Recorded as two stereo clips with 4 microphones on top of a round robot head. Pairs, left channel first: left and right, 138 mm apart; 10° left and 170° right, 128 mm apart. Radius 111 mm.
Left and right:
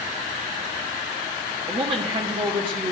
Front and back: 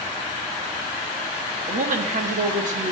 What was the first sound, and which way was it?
A woman speaking, 150° right.